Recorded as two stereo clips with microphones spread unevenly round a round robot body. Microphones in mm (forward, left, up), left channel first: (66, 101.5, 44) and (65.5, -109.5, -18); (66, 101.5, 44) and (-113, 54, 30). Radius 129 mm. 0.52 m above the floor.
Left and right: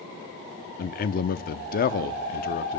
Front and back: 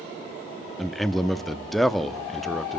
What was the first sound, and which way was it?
A man speaking, 115° left.